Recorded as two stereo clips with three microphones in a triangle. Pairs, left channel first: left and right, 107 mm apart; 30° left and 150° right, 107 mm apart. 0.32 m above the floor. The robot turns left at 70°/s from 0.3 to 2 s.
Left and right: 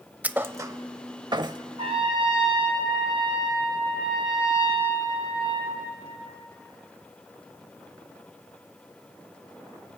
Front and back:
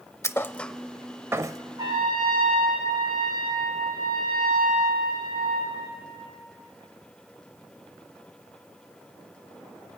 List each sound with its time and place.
0.2 s a thud: 25° right, 0.6 m; by 1.6 s 115° right, 0.6 m
1.8 s a trumpet: 105° right, 6 m; by 5.9 s 125° right, 6 m